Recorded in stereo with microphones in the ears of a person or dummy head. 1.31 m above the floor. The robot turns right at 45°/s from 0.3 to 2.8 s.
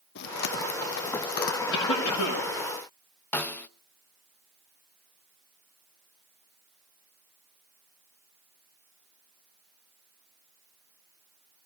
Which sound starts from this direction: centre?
A snare drum, at 3.3 s.